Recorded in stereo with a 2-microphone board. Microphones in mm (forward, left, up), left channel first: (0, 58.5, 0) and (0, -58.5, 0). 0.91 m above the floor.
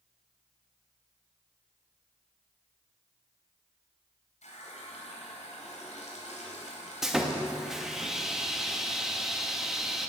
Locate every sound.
4.4 s a running tap: 75° left (ahead or behind), 3.5 m
7.0 s sawing: 5° right (ahead or behind), 0.9 m